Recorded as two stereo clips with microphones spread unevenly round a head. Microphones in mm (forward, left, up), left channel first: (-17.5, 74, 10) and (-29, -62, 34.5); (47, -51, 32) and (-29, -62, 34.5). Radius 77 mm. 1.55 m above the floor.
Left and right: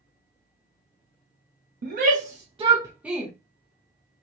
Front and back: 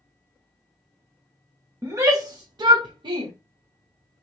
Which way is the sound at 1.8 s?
115° right.